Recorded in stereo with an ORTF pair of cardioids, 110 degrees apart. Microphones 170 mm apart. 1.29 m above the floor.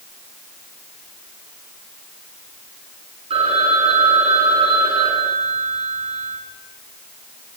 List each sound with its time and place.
3.3 s a phone ringing: 35° right, 8.5 m